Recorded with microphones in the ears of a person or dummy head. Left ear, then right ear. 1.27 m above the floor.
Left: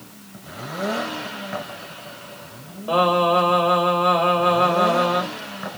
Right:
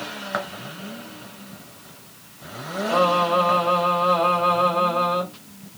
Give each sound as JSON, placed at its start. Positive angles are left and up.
{"t": 2.9, "sound": "singing", "side_deg": 85, "distance_m": 1.4}